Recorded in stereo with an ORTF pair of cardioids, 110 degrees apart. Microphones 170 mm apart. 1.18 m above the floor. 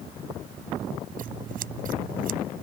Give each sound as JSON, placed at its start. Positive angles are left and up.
{"t": 1.2, "sound": "scissors", "azimuth_deg": -55}